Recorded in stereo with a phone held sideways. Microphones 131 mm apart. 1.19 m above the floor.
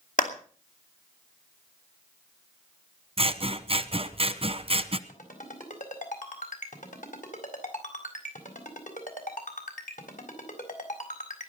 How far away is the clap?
About 2.5 m.